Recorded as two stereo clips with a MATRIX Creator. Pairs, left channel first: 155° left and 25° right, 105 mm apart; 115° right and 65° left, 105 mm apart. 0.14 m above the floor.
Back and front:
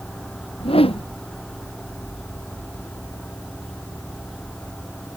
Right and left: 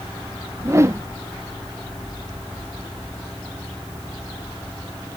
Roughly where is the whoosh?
Behind left.